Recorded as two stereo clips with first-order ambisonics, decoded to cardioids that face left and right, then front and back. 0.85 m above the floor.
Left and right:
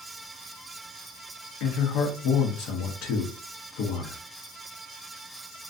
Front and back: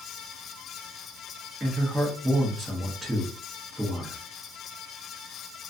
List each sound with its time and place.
1.6 s a man speaking: 100° left, 0.9 m